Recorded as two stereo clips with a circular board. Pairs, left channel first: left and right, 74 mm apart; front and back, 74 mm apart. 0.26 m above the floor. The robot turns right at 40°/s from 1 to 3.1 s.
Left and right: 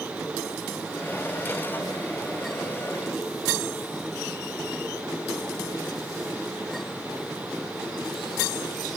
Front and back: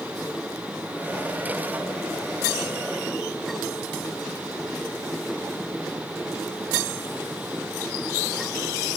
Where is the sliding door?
I don't hear a sliding door.